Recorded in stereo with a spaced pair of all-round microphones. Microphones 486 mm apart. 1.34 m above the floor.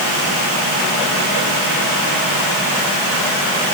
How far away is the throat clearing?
I don't hear throat clearing.